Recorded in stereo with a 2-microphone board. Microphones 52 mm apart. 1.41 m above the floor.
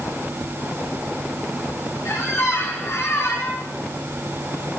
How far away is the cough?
No cough in this recording.